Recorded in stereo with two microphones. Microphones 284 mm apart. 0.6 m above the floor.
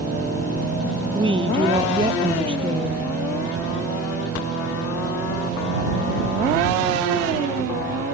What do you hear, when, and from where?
1.1 s a woman speaking: 15° right (ahead or behind)